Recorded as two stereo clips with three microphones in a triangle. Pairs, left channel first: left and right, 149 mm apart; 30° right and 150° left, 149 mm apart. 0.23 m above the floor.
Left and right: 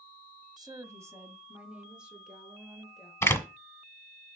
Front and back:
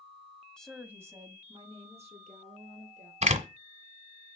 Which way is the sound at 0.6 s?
110° right.